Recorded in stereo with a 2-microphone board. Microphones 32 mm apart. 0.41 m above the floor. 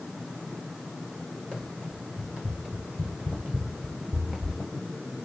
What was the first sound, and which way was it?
Running footsteps, 40° right (ahead or behind).